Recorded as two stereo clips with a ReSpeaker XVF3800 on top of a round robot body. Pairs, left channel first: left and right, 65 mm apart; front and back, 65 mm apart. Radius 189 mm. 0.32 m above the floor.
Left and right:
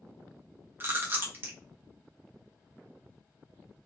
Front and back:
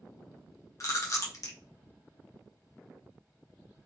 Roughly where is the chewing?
Ahead right.